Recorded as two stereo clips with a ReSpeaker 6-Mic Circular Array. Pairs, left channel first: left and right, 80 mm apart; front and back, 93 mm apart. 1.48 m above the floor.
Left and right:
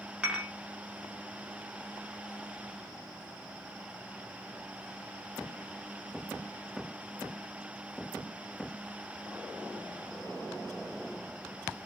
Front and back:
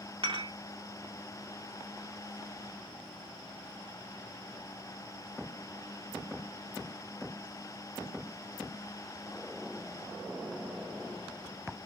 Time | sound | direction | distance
0.2 | dishes clattering | 165° right | 3 m